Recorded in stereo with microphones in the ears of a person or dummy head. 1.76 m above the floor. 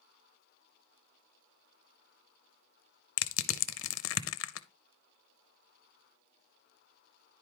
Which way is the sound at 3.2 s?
75° left (ahead or behind).